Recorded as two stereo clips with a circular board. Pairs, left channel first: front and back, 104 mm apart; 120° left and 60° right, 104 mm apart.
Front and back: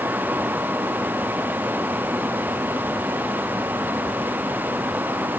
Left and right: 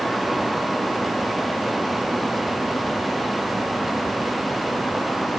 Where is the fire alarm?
No fire alarm in this recording.